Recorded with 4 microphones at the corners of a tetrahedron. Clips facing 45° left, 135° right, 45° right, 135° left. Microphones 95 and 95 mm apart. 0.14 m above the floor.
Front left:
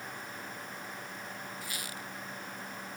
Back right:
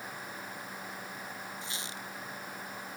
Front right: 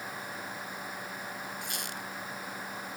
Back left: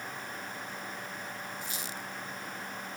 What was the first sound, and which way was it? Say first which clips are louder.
A squeak: even, front right 1 dB; 70° right.